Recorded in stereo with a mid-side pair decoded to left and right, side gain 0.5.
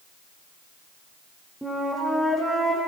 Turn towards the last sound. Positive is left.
turn(degrees=-5)